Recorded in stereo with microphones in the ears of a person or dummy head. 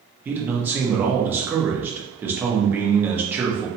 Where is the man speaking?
15° right (ahead or behind), 0.9 m.